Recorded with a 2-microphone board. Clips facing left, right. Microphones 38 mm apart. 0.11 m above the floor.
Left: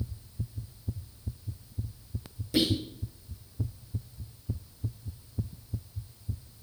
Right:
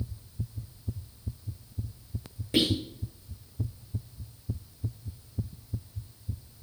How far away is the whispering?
About 3 m.